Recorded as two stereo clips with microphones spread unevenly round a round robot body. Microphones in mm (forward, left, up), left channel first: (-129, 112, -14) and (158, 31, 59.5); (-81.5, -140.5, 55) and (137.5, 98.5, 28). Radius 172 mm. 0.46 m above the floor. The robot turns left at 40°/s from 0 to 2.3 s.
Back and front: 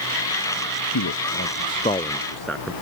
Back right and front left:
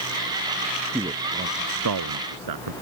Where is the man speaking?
130° left; by 2.7 s 75° left.